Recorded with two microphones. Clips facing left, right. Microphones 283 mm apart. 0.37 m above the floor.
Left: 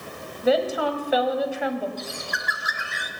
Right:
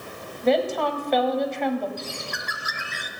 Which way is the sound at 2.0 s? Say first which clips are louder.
Left 1 dB; 35° right (ahead or behind).